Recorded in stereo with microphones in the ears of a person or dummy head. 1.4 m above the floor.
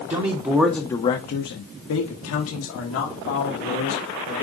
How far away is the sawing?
No sawing in this recording.